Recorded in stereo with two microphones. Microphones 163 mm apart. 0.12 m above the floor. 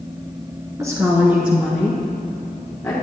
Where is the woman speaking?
20° right (ahead or behind), 1.2 m; by 2.9 s 15° left (ahead or behind), 1.9 m.